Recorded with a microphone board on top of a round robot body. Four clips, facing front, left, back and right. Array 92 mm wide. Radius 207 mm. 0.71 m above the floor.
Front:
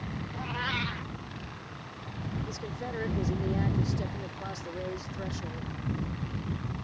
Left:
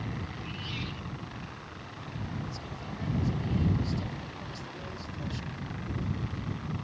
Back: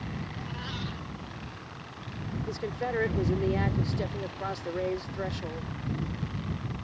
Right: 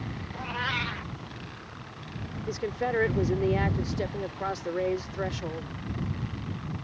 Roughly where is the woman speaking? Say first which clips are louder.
Right 11 dB, back 5 dB; right.